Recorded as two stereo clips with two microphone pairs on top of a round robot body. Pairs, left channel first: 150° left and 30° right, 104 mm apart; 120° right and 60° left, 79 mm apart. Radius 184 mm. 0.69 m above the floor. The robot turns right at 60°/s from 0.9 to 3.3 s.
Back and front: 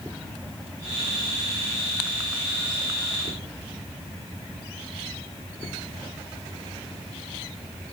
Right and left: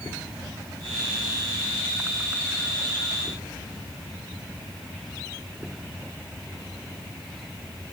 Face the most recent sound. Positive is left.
No sound to turn to.